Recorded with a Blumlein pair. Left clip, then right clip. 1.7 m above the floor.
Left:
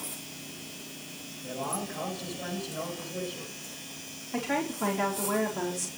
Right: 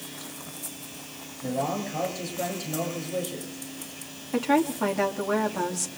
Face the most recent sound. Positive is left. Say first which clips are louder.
# right 7 dB
turn(degrees=-70)